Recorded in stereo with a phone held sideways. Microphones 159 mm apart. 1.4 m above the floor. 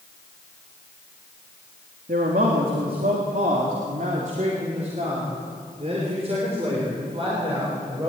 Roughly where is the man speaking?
Right.